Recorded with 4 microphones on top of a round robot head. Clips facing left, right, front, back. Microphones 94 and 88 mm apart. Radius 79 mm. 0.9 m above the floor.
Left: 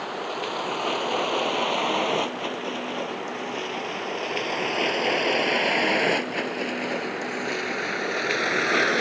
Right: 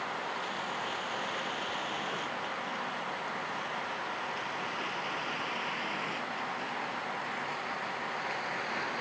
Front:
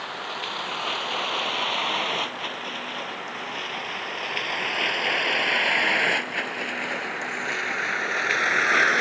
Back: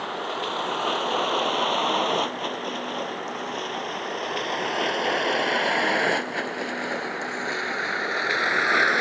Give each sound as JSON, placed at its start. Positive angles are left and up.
{"t": 0.0, "sound": "a vehicle", "azimuth_deg": 130}